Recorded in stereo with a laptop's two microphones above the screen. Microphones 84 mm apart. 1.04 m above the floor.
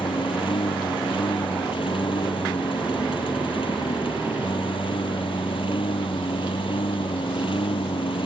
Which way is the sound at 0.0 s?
80° left.